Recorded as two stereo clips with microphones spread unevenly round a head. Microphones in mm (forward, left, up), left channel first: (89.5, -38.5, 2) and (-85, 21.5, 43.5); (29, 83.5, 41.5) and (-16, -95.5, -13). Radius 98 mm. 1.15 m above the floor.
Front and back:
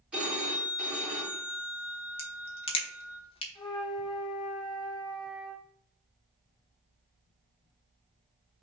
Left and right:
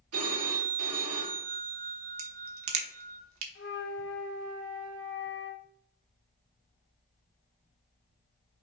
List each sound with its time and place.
0.1 s a phone ringing: 115° right, 2.0 m
2.2 s a crack: 85° right, 1.0 m
3.5 s a flute: 50° left, 0.9 m